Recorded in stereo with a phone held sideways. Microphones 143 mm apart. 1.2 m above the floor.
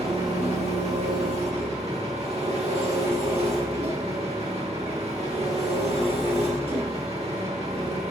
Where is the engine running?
45° right (ahead or behind), 1.3 m.